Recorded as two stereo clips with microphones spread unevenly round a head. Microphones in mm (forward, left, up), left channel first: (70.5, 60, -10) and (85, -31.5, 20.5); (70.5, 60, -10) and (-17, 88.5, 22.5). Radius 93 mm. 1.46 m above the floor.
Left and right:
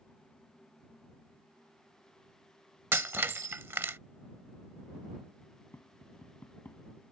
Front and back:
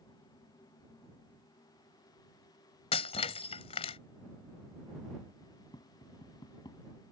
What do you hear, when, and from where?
2.9 s breaking glass: 55° right
5.7 s tapping: 30° left